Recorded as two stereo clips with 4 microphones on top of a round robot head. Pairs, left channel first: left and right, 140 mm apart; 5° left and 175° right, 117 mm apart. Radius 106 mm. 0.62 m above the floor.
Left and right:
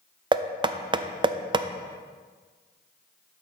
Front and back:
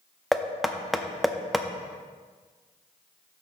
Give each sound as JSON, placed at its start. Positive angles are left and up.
{"t": 0.3, "sound": "knocking", "azimuth_deg": -85, "distance_m": 0.5}